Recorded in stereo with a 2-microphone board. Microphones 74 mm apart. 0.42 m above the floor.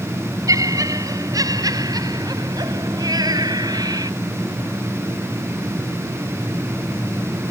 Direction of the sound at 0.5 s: 50° right (ahead or behind).